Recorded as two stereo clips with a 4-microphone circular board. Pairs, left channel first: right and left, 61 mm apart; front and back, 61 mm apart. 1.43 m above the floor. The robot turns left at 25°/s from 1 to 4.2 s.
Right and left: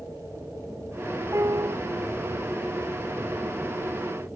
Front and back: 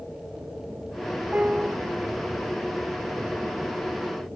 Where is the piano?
115° left, 0.7 m; by 1.8 s 105° left, 0.7 m.